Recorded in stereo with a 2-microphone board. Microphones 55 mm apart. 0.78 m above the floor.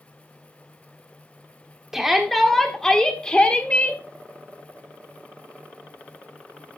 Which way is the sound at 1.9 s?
10° right (ahead or behind).